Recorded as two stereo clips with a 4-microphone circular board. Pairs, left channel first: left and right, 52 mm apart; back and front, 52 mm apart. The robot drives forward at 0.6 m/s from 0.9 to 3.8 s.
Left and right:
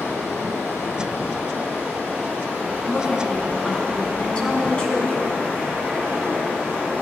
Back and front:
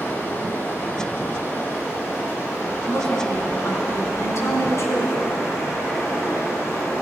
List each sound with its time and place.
0.0 s running water: 135° left, 4 m; by 7.0 s 145° left, 5.5 m
2.9 s a woman speaking: 155° left, 3 m